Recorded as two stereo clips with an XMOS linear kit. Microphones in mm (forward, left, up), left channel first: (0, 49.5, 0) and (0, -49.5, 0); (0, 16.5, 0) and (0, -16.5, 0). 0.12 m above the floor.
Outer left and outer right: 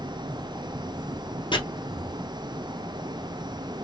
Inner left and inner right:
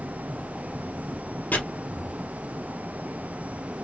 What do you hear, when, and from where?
1.5 s chopping: 55° left (ahead or behind), 2 m